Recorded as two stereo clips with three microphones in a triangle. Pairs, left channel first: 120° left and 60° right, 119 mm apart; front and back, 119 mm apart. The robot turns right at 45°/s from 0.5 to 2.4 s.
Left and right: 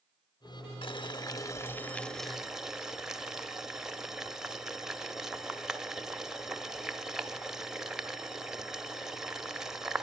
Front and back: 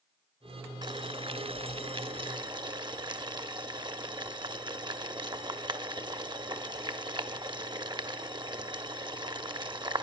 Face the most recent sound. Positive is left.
turn(degrees=-145)